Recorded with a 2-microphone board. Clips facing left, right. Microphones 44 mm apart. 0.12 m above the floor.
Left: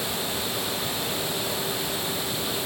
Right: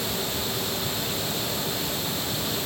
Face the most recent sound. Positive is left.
No sound to turn to.